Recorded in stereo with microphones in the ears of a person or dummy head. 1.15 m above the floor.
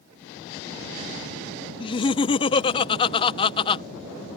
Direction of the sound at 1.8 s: 25° left (ahead or behind).